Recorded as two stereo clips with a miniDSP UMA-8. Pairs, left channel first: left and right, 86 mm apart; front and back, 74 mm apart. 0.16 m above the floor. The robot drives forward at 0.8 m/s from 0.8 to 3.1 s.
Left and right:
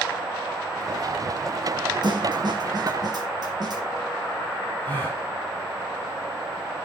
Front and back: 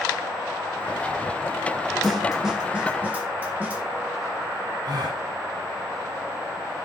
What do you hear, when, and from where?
2.0 s a snare drum: 90° right, 2.5 m; by 3.8 s 115° right, 2.5 m
4.8 s a gasp: 160° left, 5.5 m